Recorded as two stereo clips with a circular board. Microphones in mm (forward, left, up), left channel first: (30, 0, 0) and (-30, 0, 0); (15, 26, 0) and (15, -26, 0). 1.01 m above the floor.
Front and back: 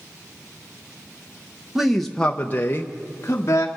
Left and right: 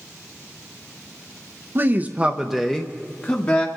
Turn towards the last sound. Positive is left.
turn(degrees=45)